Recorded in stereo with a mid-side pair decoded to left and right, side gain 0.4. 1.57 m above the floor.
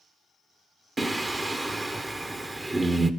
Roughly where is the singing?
Ahead.